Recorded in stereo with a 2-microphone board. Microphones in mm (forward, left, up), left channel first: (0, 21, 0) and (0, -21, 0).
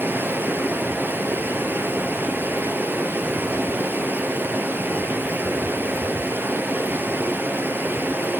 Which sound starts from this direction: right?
Running water, at 0.0 s.